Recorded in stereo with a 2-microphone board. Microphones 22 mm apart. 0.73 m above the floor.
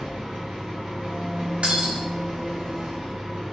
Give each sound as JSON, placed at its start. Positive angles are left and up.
{"t": 0.0, "sound": "an engine running", "side_deg": -45, "distance_m": 0.8}
{"t": 1.6, "sound": "breaking glass", "side_deg": -65, "distance_m": 0.6}